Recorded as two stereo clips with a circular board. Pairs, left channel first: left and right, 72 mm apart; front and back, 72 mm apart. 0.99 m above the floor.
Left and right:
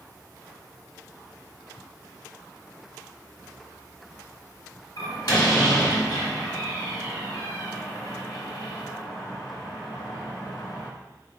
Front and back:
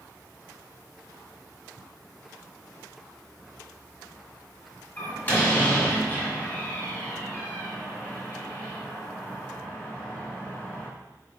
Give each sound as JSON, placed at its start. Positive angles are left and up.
{"t": 5.0, "sound": "a door slam", "azimuth_deg": 65, "distance_m": 1.6}